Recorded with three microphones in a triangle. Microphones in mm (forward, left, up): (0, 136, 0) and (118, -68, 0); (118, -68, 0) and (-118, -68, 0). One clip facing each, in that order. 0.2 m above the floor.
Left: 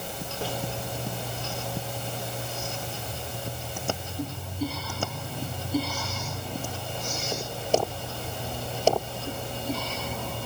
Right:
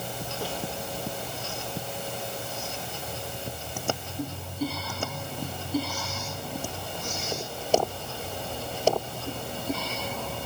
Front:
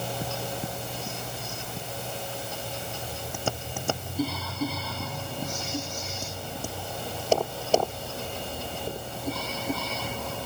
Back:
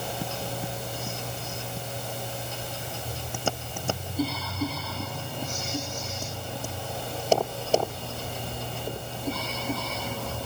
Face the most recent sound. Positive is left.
No sound to turn to.